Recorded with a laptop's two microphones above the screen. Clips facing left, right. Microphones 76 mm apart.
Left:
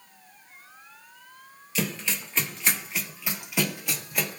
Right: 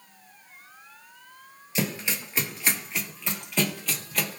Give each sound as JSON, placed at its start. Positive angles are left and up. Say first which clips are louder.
{"t": 1.8, "sound": "running footsteps", "louder": "right 1 dB", "side_deg": -20, "distance_m": 1.1}